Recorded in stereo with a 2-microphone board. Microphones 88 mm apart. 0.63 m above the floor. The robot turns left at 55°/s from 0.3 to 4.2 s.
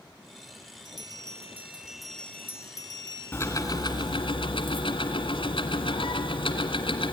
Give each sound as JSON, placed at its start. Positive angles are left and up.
{"t": 0.8, "sound": "a bell", "azimuth_deg": -115, "distance_m": 1.1}
{"t": 3.3, "sound": "ticking", "azimuth_deg": 155, "distance_m": 1.6}